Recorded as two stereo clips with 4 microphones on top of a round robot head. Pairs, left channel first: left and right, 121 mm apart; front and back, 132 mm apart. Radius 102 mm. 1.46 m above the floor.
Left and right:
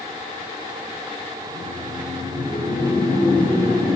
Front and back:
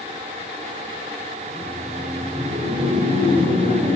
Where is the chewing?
No chewing in this recording.